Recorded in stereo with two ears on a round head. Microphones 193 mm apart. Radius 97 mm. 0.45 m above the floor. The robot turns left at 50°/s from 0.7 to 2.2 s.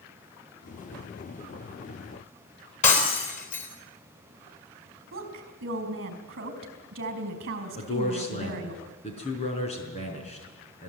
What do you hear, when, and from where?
2.8 s breaking glass: 35° left (ahead or behind), 5 m
5.1 s a woman speaking: 45° right (ahead or behind), 4 m
7.8 s a man speaking: 30° left (ahead or behind), 5 m